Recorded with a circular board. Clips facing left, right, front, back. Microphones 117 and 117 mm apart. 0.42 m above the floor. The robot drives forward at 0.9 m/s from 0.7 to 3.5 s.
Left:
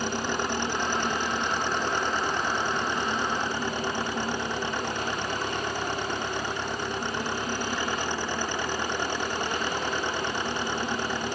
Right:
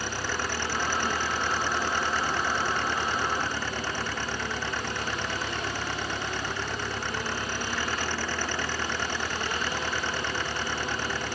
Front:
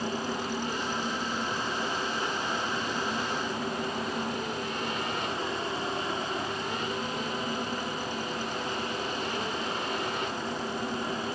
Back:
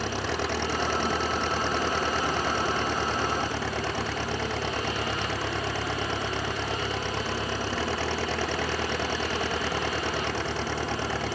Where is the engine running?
160° left; by 11.3 s 165° left.